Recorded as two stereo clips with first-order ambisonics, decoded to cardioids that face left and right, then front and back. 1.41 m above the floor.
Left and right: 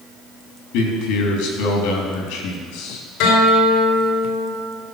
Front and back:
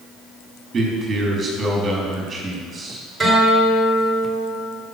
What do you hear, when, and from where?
0.7 s a man speaking: 105° left, 3.5 m
3.2 s a guitar: 95° left, 3.5 m